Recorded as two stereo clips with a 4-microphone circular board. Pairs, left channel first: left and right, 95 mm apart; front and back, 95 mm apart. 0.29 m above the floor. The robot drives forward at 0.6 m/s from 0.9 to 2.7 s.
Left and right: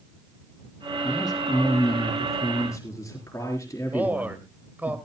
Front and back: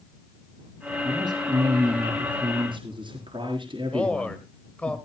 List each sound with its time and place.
1.0 s a man speaking: 140° left, 2.5 m; by 4.9 s 150° left, 3.5 m
3.9 s a man speaking: 55° right, 1.5 m